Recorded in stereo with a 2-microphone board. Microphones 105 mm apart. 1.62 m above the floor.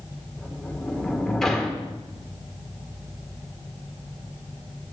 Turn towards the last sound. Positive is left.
turn(degrees=5)  # may be behind; listen again after turning